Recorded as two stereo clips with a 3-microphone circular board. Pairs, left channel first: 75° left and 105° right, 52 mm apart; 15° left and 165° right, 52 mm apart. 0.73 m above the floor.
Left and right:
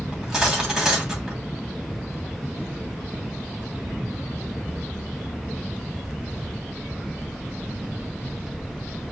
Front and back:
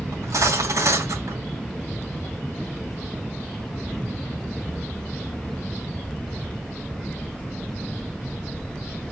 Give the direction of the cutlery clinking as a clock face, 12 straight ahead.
6 o'clock.